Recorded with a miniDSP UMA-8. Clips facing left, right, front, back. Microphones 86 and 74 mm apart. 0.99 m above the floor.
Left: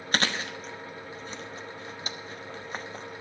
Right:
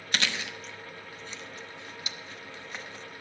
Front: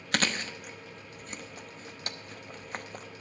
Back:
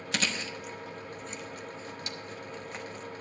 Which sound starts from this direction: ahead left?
Chewing, at 0.1 s.